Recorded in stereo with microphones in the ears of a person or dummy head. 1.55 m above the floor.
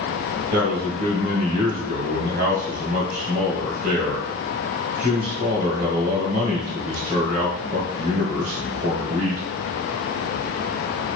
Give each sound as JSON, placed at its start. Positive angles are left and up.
{"t": 0.5, "sound": "a man speaking", "side_deg": -45, "distance_m": 1.2}